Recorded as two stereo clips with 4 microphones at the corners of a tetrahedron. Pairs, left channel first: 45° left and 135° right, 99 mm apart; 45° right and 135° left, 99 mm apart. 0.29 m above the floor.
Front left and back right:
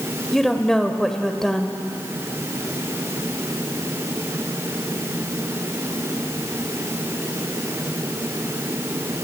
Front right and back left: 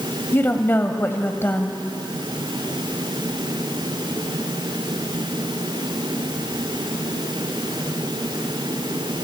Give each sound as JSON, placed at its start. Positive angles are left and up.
{"t": 0.3, "sound": "a woman speaking", "azimuth_deg": -35, "distance_m": 1.3}